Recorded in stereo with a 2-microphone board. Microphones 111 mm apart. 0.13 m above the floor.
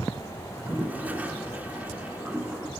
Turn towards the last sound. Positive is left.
turn(degrees=-15)  # may be behind; listen again after turning